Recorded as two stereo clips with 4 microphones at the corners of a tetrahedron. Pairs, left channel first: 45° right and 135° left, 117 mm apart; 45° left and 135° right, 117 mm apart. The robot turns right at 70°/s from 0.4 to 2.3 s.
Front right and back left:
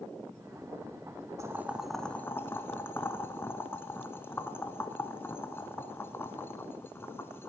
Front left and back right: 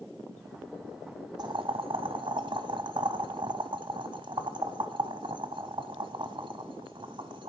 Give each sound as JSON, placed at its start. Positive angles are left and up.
{"t": 1.4, "sound": "boiling", "azimuth_deg": -170, "distance_m": 0.9}